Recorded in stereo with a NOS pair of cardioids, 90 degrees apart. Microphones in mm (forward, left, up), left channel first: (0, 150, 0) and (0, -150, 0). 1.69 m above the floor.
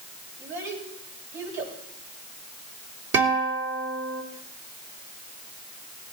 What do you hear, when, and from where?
0.4 s a child speaking: 65° right, 7.5 m
3.1 s a guitar: 55° right, 4 m